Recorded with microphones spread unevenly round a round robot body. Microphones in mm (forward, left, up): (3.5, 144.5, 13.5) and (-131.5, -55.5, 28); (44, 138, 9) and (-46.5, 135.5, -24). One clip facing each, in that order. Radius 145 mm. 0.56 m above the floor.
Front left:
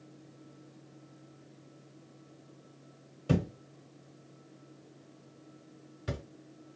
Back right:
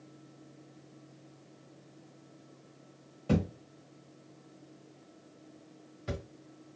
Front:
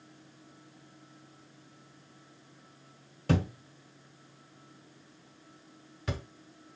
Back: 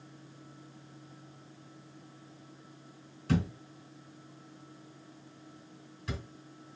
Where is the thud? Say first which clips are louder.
Back right 1 dB, front 1 dB; 20° right, 1.2 m.